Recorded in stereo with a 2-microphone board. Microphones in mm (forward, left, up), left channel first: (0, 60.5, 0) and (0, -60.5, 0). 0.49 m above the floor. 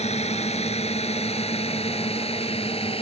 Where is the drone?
65° left (ahead or behind); by 3.0 s 55° left (ahead or behind).